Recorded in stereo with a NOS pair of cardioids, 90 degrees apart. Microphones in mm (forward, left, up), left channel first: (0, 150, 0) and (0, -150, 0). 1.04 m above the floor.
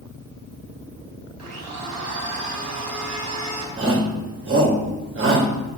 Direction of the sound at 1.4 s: 60° right.